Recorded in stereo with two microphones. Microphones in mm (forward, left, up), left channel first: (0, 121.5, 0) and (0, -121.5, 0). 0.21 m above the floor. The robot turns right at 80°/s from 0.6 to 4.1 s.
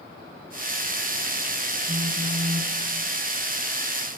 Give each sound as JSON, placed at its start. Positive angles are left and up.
{"t": 1.9, "sound": "a phone buzzing", "azimuth_deg": -105, "distance_m": 1.1}